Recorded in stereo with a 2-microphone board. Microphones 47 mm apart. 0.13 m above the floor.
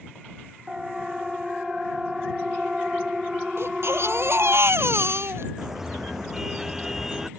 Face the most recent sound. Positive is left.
turn(degrees=-10)  # may be behind; listen again after turning